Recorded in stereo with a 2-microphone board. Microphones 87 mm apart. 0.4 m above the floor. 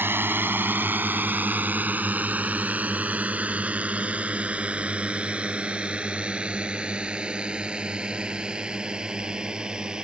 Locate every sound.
0.0 s a drone: 25° right (ahead or behind); by 10.1 s 10° right (ahead or behind)